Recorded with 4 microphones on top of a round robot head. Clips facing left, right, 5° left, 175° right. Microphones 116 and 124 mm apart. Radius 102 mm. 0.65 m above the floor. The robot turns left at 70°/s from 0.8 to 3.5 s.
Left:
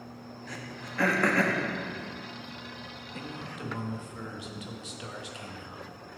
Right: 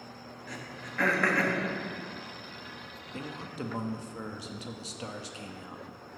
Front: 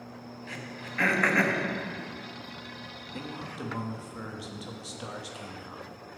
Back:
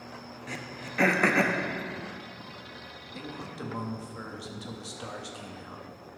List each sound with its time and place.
0.5 s throat clearing: straight behind, 0.8 m; by 1.6 s 125° left, 0.8 m
3.1 s a man speaking: 55° right, 0.8 m; by 5.8 s 80° right, 0.8 m